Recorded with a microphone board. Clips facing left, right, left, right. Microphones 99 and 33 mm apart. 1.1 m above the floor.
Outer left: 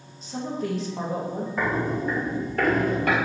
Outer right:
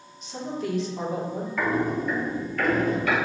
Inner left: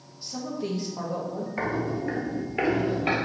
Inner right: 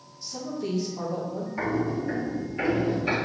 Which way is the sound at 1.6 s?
25° left (ahead or behind).